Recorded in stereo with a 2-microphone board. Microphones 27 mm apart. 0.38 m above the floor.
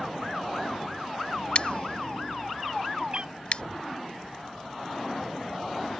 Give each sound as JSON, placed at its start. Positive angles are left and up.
{"t": 1.6, "sound": "scissors", "side_deg": 45}
{"t": 3.1, "sound": "a cat meowing", "side_deg": -40}